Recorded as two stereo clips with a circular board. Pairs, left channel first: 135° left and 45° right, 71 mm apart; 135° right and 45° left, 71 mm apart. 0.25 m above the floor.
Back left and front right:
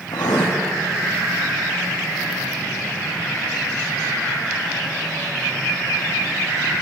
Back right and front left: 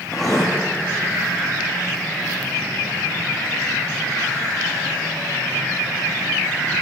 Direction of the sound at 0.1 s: 140° left.